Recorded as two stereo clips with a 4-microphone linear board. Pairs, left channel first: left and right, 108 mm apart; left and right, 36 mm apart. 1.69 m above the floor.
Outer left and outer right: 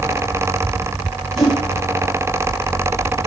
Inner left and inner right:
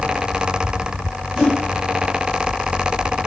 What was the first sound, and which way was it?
A whoosh, centre (ahead or behind).